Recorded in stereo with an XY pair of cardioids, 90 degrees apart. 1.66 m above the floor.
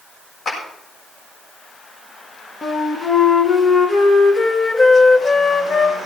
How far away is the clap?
About 7 m.